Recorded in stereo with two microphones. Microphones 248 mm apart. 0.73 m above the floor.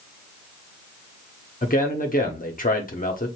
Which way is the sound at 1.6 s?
35° left (ahead or behind).